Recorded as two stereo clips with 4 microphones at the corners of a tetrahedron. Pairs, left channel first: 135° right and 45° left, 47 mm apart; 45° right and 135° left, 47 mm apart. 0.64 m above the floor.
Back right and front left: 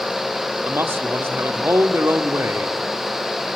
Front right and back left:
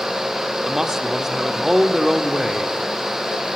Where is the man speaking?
55° left, 1.6 m.